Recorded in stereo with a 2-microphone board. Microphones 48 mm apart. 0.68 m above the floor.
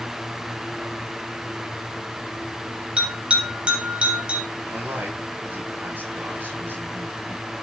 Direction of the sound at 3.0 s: 25° right (ahead or behind).